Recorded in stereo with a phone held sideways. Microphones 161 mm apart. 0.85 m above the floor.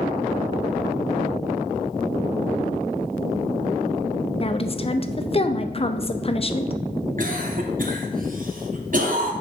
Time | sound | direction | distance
4.4 | a woman speaking | 35° left (ahead or behind) | 0.6 m
7.2 | a cough | 55° right (ahead or behind) | 1.6 m